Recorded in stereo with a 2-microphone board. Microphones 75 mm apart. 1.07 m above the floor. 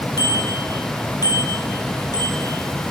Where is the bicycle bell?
55° left (ahead or behind), 6.5 m; by 2.9 s 50° left (ahead or behind), 7.5 m.